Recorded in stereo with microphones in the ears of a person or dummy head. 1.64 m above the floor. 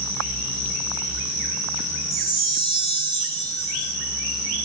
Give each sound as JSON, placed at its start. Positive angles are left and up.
{"t": 2.1, "sound": "a chime", "side_deg": 25, "distance_m": 0.5}